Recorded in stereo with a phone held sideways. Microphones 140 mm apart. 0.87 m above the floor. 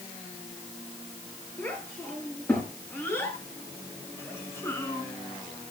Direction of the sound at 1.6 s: 15° left (ahead or behind).